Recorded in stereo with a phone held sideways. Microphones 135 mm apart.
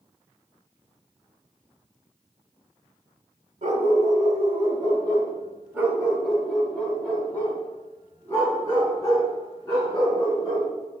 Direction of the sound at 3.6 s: 70° right (ahead or behind).